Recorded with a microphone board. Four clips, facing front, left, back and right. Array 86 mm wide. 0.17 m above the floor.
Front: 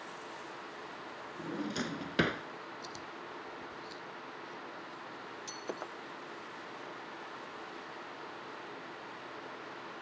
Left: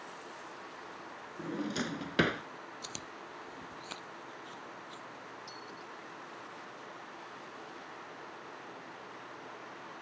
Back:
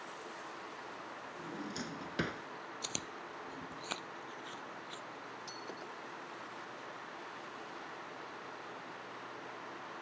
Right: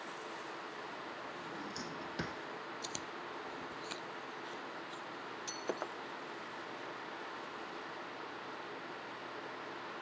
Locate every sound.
1.4 s a drawer: 55° left
2.8 s chewing: straight behind
5.5 s breaking glass: 60° right